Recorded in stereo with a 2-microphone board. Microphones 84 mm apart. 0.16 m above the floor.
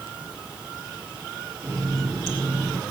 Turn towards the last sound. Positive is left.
turn(degrees=10)  # may be behind; listen again after turning